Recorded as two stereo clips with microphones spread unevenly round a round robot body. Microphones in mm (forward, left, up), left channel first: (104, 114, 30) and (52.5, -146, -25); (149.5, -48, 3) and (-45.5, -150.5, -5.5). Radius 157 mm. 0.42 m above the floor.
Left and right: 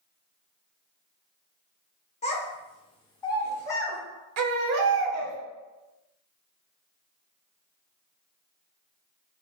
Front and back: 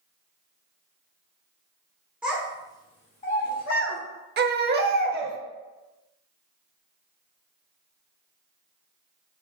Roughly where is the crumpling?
I don't hear crumpling.